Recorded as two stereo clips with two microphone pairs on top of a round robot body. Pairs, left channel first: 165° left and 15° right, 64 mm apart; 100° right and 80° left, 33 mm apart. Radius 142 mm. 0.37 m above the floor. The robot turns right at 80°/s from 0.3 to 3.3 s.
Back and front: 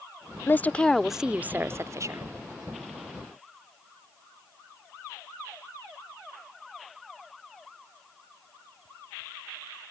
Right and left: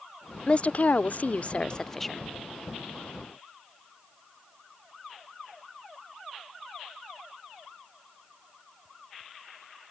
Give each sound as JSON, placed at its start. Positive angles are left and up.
{"t": 0.5, "sound": "a woman speaking", "azimuth_deg": -150}